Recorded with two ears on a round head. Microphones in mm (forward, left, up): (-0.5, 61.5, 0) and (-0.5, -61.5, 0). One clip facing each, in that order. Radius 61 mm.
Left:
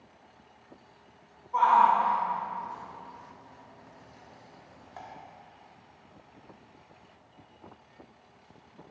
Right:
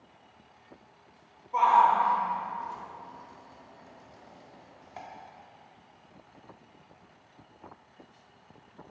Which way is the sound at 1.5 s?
25° right (ahead or behind).